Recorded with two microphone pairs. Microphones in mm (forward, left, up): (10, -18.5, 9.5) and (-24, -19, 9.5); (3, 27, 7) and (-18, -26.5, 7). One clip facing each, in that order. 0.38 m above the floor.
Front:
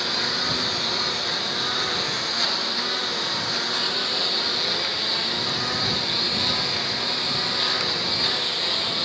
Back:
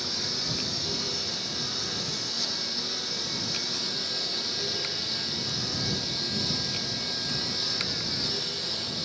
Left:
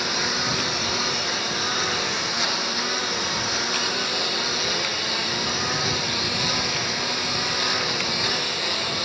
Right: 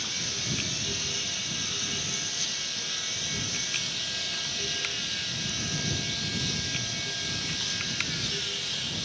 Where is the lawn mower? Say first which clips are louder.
Front 8 dB, left 11 dB; 40° left.